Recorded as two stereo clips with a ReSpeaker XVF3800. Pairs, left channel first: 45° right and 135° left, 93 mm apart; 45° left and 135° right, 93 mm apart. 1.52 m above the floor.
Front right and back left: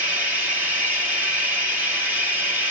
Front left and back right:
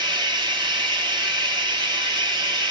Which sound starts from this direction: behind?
Running water, at 0.0 s.